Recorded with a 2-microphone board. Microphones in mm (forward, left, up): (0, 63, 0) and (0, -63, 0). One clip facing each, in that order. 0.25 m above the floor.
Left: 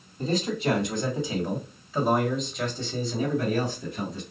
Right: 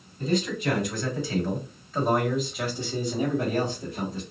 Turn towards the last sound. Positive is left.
turn(degrees=-40)  # may be behind; listen again after turning